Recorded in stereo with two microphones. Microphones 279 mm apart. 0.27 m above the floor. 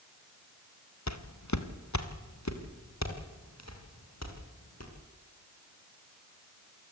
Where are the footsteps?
75° left (ahead or behind), 1.8 m; by 4.9 s 65° left (ahead or behind), 7 m.